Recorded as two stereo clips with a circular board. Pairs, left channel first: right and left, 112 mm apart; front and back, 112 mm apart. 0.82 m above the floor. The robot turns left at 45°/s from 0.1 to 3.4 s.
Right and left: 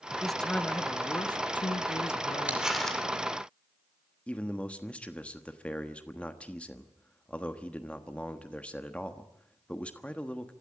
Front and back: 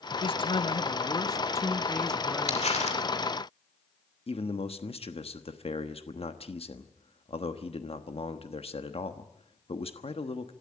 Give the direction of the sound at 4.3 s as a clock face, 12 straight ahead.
12 o'clock.